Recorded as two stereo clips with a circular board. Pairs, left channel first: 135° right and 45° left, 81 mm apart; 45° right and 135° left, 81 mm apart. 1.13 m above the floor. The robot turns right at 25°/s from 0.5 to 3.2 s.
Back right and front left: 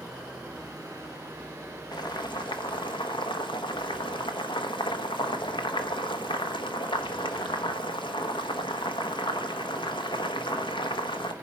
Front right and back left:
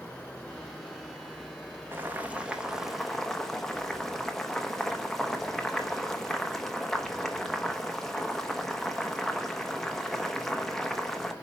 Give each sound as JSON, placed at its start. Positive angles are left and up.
{"t": 1.9, "sound": "boiling", "azimuth_deg": -165, "distance_m": 1.3}